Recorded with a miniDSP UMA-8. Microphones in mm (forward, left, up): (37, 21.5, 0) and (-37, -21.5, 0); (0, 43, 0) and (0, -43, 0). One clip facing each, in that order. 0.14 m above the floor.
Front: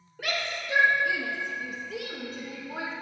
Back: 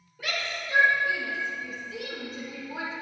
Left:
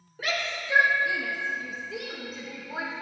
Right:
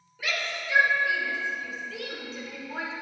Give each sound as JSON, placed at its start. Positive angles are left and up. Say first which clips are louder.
{"t": 0.2, "sound": "a shout", "louder": "front 1 dB, left 1 dB", "azimuth_deg": 45, "distance_m": 2.5}